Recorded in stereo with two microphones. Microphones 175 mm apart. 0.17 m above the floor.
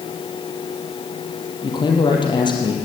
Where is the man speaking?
25° left (ahead or behind), 5.5 m.